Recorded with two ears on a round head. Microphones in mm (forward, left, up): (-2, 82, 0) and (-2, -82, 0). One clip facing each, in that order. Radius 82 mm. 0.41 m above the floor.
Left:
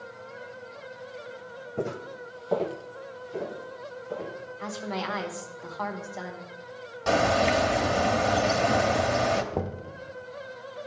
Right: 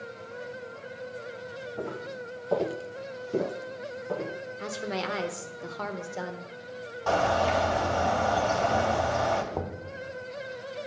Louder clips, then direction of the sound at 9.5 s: Left 2 dB; 20° left (ahead or behind).